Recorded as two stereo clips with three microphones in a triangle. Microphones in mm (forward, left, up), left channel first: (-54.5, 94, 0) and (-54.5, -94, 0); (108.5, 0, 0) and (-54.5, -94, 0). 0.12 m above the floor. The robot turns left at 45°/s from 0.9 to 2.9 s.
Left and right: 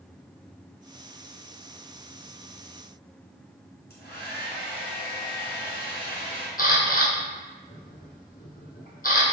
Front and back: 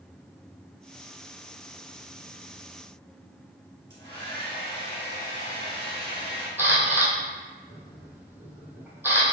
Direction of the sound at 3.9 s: 105° left.